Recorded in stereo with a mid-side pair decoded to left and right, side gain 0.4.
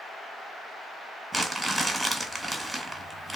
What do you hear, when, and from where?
1.3 s crumpling: 20° right, 1.3 m